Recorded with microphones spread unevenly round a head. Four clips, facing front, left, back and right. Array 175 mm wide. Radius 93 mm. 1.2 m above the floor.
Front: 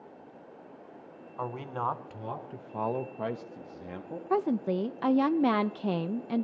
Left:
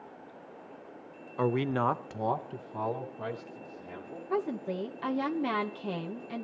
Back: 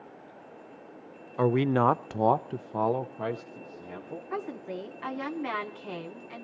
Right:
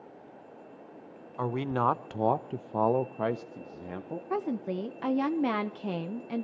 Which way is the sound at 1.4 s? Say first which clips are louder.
Left 1 dB, back 10 dB; 160° left.